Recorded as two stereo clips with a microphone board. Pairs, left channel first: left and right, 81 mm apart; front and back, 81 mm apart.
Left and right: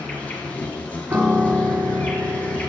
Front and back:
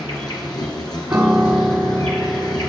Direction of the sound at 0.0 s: 20° left.